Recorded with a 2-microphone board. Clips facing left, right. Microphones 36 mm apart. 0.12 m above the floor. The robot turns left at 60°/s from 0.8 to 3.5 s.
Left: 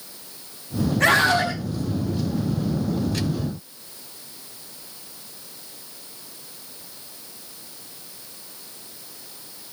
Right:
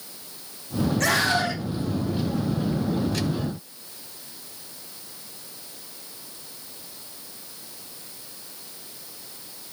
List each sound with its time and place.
1.0 s a scream: 160° left, 5.5 m; by 1.5 s 130° left, 5.5 m